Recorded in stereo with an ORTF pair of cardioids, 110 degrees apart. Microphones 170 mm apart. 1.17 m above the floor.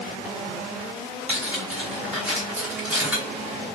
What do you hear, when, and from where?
1.3 s cutlery clinking: 10° right, 2.5 m